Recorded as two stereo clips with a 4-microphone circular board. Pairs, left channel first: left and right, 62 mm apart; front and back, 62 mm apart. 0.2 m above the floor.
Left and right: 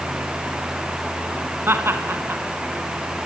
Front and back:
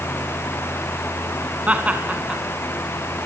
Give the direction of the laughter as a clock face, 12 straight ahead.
4 o'clock.